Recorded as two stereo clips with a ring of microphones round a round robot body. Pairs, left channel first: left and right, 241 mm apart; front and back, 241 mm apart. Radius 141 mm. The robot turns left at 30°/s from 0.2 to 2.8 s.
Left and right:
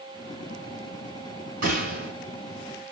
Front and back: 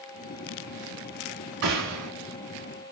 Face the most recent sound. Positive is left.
turn(degrees=180)